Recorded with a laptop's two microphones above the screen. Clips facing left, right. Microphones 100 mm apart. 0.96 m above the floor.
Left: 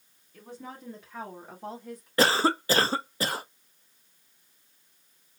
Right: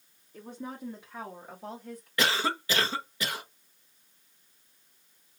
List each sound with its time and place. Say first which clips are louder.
0.3 s a woman speaking: right 3 dB; 25° right (ahead or behind), 1.1 m; by 2.1 s 15° left (ahead or behind), 1.6 m
2.2 s a cough: left 6 dB; 40° left (ahead or behind), 0.6 m